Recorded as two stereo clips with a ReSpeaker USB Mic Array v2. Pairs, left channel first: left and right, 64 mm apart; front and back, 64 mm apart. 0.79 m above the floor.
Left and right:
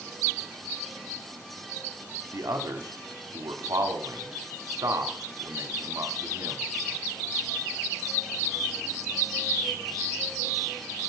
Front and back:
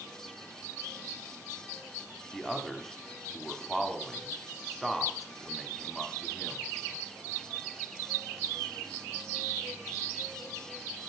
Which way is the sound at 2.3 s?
85° right.